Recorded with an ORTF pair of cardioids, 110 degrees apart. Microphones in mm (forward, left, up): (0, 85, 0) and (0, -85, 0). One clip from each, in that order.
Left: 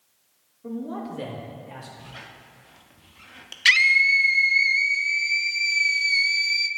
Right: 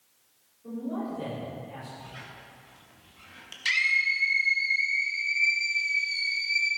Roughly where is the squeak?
Ahead left.